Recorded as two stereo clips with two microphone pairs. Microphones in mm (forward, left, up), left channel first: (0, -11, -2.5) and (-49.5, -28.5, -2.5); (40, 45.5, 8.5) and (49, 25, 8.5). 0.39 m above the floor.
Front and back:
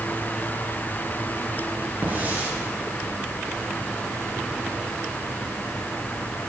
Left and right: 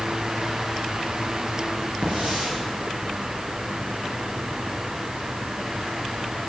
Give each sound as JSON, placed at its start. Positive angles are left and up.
{"t": 2.0, "sound": "a hiss", "azimuth_deg": -105, "distance_m": 4.0}